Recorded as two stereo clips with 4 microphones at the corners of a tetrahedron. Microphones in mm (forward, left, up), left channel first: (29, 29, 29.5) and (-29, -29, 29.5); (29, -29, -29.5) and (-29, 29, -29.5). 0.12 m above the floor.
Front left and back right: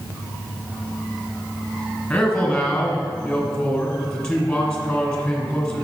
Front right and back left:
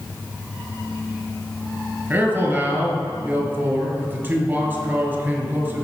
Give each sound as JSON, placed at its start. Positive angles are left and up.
{"t": 2.1, "sound": "a man speaking", "azimuth_deg": 110, "distance_m": 1.4}